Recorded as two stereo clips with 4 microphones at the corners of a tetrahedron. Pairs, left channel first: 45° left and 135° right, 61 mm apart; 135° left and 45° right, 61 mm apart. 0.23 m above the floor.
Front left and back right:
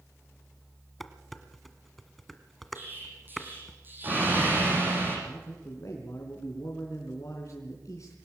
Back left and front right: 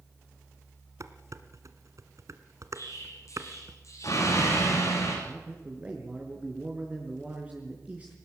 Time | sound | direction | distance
1.0 | dishes clattering | 45° right | 1.6 m
2.8 | an explosion | 170° left | 9.5 m
5.3 | a man speaking | 20° left | 3.5 m